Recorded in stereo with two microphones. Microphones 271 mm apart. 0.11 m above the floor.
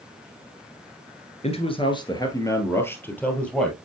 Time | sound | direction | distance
1.4 | a man speaking | 20° left (ahead or behind) | 1.4 m